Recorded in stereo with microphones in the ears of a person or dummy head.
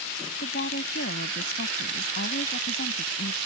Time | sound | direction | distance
0.4 | a woman speaking | 50° left (ahead or behind) | ?